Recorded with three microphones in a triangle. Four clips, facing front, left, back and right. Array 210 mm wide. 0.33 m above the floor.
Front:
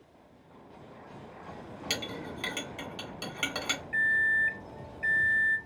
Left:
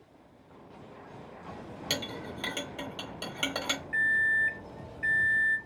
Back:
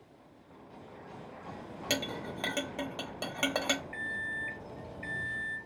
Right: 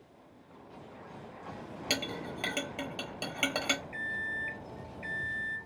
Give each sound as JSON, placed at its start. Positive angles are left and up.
{"t": 1.9, "sound": "a clink", "azimuth_deg": -160, "distance_m": 1.1}
{"t": 3.9, "sound": "a microwave", "azimuth_deg": 45, "distance_m": 0.9}